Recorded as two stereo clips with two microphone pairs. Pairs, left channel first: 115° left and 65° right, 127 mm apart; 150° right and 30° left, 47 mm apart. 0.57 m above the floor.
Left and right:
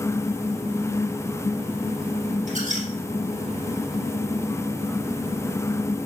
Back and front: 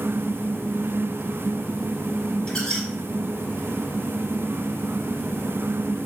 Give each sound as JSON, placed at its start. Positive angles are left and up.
{"t": 2.5, "sound": "a squeak", "azimuth_deg": -80, "distance_m": 4.0}